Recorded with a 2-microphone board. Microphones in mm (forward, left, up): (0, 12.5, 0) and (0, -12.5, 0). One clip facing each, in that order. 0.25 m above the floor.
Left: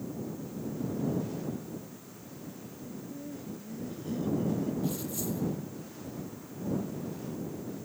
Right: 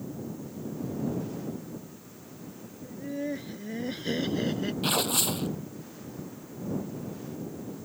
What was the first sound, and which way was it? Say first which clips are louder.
Laughter: right 9 dB; 55° right (ahead or behind).